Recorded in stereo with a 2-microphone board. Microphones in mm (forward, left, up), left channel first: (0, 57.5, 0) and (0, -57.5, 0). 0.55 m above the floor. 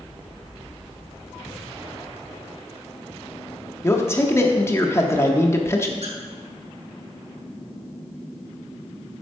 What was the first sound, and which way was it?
A man speaking, 25° left (ahead or behind).